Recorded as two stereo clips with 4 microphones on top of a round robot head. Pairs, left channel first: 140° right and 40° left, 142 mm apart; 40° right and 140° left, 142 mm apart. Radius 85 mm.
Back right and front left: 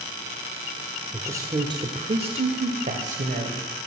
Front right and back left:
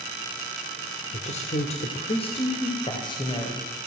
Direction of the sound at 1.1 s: 30° right.